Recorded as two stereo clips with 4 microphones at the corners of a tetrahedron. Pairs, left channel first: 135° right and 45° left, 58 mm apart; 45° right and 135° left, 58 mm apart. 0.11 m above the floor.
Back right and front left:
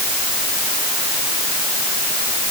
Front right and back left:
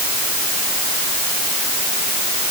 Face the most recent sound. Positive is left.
No sound to turn to.